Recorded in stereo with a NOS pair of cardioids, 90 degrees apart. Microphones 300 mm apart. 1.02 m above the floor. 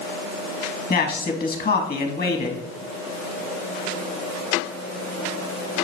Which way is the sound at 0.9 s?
30° left.